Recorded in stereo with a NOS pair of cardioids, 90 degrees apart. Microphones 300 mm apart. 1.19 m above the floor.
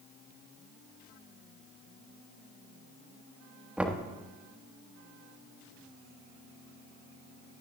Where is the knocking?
5° right, 1.4 m.